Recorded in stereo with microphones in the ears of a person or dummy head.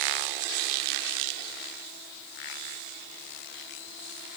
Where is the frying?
I don't hear frying.